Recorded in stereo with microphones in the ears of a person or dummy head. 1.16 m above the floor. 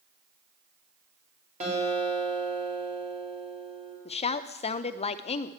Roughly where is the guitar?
Right.